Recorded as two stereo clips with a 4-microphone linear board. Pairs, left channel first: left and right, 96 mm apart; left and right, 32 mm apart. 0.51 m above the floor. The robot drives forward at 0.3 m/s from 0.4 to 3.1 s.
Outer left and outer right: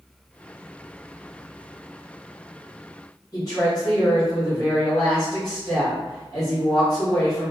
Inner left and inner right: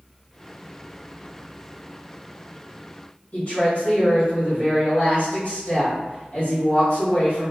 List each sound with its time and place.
3.3 s a woman speaking: 45° left (ahead or behind), 1.5 m